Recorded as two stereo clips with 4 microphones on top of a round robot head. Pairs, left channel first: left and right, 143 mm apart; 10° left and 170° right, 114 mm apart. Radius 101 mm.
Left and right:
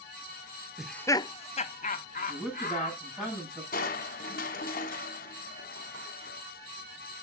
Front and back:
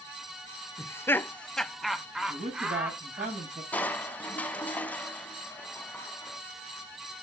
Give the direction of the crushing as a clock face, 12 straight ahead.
9 o'clock.